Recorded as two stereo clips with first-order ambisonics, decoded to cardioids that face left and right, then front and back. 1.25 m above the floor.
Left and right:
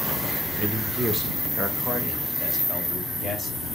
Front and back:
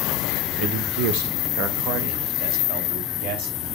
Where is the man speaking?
160° right, 1.1 m; by 3.8 s 170° left, 3.5 m.